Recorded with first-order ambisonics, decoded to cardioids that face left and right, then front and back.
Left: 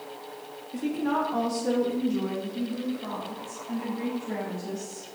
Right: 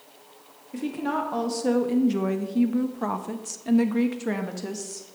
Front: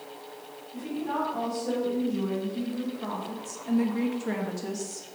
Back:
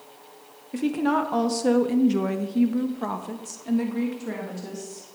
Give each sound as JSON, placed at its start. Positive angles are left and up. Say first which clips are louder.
{"t": 0.7, "sound": "a woman speaking", "louder": "even, back 7 dB", "azimuth_deg": -170, "distance_m": 1.5}